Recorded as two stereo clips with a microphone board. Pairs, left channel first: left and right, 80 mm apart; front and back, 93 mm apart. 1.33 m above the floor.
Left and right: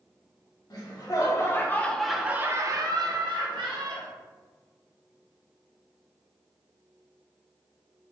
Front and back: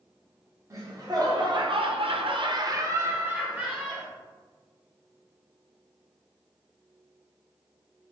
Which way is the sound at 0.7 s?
125° left.